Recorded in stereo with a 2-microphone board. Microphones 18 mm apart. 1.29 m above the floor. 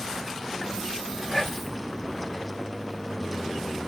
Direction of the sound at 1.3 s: 5° left (ahead or behind).